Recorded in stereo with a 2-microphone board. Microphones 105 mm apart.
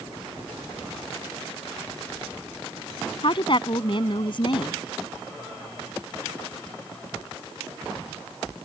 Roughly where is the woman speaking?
Left.